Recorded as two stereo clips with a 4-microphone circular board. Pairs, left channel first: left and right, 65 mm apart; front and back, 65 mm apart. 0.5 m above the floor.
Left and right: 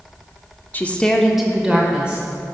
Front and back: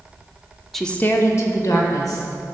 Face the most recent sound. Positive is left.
turn(degrees=-20)